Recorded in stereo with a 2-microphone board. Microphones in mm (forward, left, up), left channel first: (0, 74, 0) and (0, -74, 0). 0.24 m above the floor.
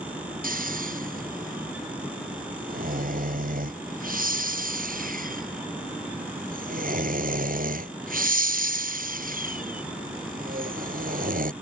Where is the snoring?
70° right (ahead or behind).